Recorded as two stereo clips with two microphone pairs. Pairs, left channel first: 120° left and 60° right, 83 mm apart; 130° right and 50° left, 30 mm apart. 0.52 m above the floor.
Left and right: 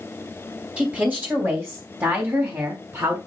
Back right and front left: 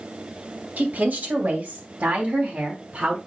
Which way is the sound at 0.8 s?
15° left.